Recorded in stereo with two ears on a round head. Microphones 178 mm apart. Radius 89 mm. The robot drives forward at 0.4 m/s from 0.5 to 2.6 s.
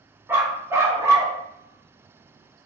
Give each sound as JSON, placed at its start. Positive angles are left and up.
{"t": 0.3, "sound": "a dog barking", "side_deg": -10, "distance_m": 0.8}